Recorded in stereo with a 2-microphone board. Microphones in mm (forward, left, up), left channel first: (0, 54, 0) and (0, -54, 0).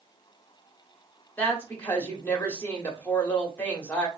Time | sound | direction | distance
1.4 | a woman speaking | 15° left (ahead or behind) | 1.3 m